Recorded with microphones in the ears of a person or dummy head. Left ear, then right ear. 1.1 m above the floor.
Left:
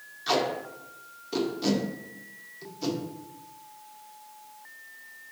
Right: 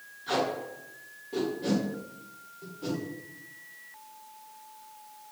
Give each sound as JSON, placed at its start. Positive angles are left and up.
{"t": 0.3, "sound": "tape being pulled", "side_deg": 60, "distance_m": 1.2}